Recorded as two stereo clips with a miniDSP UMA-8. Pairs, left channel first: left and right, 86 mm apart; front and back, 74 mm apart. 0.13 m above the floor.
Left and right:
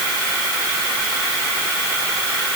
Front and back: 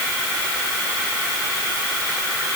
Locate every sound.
Only background noise.